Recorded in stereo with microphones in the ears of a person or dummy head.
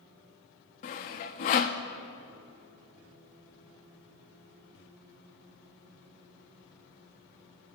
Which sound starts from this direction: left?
Sawing, at 0.8 s.